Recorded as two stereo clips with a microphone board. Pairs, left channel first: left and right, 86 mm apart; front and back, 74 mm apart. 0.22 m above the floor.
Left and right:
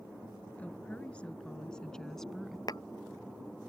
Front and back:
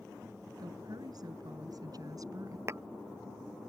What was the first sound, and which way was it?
A woman speaking, 160° left.